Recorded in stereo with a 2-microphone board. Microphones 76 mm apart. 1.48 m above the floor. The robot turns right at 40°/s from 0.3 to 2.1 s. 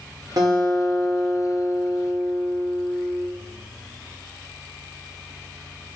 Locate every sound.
0.4 s a guitar: 125° right, 1.1 m; by 3.3 s 55° right, 1.1 m